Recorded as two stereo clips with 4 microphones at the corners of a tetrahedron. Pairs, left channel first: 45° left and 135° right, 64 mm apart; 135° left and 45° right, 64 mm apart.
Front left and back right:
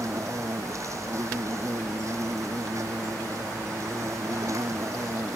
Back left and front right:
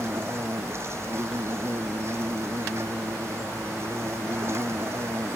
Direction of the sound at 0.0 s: 95° right.